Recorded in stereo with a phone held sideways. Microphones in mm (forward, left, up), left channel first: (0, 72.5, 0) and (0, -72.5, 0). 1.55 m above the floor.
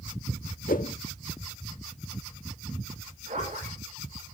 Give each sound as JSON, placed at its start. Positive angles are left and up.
{"t": 0.7, "sound": "a whoosh", "side_deg": 70, "distance_m": 1.0}
{"t": 3.3, "sound": "a zipper", "side_deg": -55, "distance_m": 6.0}